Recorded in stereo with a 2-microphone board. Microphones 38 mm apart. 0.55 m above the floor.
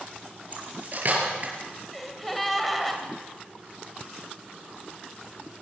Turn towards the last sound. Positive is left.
turn(degrees=5)  # may be behind; listen again after turning